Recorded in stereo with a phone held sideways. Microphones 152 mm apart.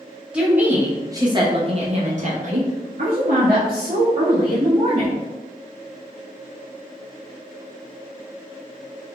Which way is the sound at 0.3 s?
5° right (ahead or behind).